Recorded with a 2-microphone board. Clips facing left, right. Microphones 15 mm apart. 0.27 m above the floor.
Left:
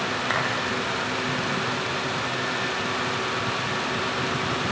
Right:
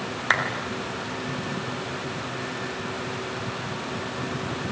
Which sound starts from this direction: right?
A clap, at 0.3 s.